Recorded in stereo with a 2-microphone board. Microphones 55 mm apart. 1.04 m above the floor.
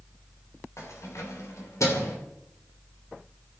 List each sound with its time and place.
0.8 s keys jangling: 65° left (ahead or behind), 3.5 m; by 2.2 s 80° left, 2.5 m